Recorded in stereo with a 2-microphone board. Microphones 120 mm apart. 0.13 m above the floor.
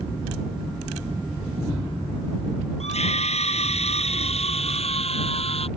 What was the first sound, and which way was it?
A scream, 65° left (ahead or behind).